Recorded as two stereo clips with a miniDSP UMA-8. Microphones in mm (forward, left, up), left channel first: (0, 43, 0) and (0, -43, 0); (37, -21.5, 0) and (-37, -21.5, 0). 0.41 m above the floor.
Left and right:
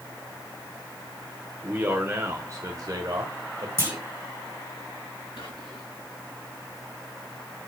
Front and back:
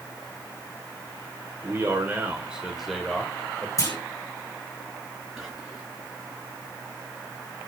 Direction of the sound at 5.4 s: 90° left.